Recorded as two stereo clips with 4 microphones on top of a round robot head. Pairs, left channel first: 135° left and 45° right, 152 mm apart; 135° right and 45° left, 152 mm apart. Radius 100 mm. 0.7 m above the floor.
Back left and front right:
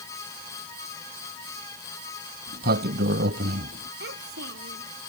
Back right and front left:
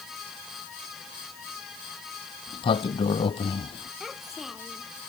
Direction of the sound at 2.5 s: 75° right.